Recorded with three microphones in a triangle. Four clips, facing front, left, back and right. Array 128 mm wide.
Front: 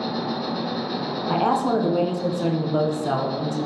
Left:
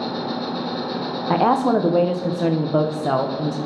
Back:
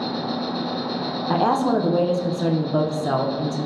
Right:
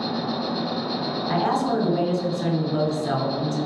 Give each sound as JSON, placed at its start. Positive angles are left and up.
{"t": 0.0, "sound": "an insect", "azimuth_deg": 100, "distance_m": 1.9}
{"t": 1.3, "sound": "a woman speaking", "azimuth_deg": 100, "distance_m": 0.5}